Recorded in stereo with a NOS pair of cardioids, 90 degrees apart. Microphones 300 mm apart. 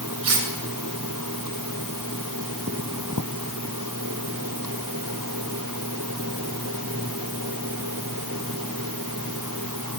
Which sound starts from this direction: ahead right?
Cutlery clinking, at 0.2 s.